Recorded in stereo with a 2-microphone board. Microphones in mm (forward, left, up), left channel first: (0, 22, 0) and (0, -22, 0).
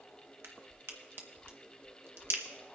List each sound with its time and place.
0.4 s a crack: 65° right (ahead or behind), 1.1 m